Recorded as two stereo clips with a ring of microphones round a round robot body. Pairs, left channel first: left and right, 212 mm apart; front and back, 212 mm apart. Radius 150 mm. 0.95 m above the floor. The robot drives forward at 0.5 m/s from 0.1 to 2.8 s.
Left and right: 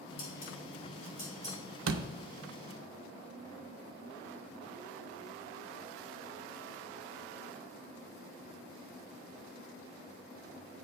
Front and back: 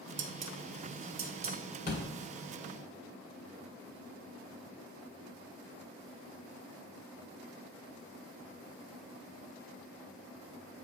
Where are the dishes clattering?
140° left, 0.7 m; by 1.6 s 160° left, 1.3 m.